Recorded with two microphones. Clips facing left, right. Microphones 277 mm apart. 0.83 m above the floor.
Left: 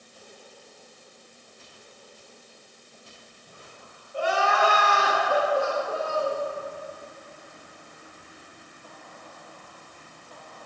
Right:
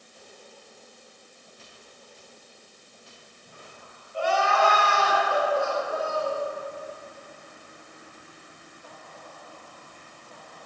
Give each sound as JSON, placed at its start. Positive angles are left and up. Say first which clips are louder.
{"t": 4.1, "sound": "crying", "louder": "right 1 dB", "side_deg": 55, "distance_m": 1.8}